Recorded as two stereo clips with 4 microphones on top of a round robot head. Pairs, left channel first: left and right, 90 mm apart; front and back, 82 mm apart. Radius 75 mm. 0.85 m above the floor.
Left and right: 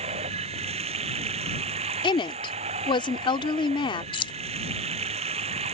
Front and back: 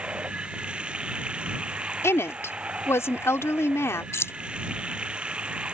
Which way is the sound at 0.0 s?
95° right.